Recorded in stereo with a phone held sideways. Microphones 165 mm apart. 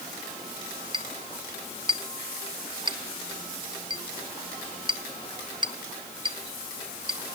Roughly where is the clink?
Right.